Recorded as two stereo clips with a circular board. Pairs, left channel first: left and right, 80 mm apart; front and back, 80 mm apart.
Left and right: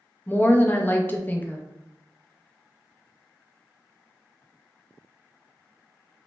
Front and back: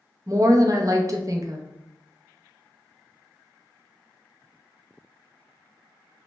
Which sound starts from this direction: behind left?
A woman speaking, at 0.3 s.